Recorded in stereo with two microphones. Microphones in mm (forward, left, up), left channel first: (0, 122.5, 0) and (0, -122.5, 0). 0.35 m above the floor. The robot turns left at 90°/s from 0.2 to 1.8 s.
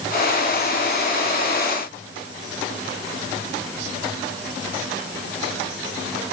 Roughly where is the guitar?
I don't hear a guitar.